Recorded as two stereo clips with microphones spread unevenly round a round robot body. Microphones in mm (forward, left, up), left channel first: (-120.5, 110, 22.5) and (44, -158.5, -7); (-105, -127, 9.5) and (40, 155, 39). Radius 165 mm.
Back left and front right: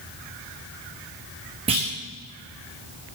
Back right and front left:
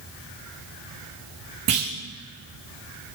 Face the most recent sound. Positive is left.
turn(degrees=15)